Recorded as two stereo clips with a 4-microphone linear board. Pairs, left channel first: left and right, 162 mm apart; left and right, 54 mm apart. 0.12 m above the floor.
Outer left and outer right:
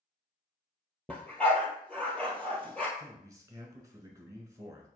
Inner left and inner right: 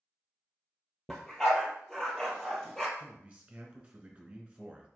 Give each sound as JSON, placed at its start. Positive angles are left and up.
{"t": 1.1, "sound": "a dog barking", "side_deg": 5, "distance_m": 1.0}
{"t": 3.0, "sound": "a man speaking", "side_deg": -20, "distance_m": 1.1}